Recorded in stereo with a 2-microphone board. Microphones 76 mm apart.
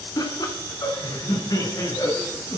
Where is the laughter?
60° left (ahead or behind), 3.5 m; by 2.6 s 55° left (ahead or behind), 5.5 m.